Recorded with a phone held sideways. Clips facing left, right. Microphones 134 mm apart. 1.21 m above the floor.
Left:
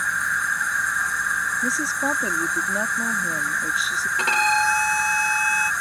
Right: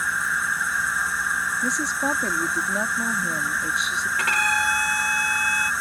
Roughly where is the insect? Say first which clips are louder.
Even; centre.